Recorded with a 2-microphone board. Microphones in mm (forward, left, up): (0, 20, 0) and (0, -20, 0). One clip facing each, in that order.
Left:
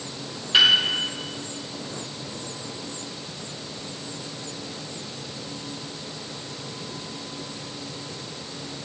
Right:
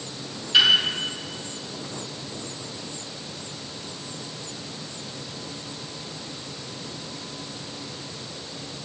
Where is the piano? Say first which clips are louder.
Even; 25° left (ahead or behind), 5.5 m.